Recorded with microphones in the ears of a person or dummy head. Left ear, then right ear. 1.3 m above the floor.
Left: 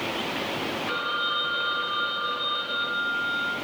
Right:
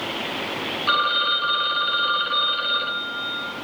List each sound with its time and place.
0.9 s a phone ringing: 60° right (ahead or behind), 1.0 m